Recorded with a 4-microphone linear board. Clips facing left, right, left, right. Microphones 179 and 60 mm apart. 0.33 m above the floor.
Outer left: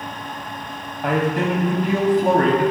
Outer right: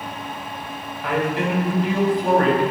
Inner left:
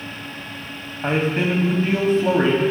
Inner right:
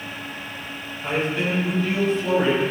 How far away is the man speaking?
About 2.0 m.